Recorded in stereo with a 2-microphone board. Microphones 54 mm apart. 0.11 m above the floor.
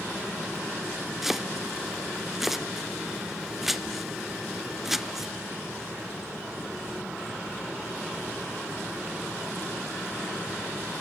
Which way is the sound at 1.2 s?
5° right (ahead or behind).